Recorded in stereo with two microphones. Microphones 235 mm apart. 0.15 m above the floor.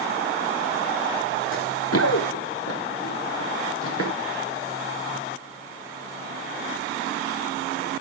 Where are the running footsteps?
65° left (ahead or behind), 0.6 m; by 4.1 s 75° left (ahead or behind), 3 m.